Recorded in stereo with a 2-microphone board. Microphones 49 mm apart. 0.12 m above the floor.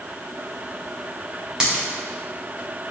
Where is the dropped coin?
15° right (ahead or behind), 3 m.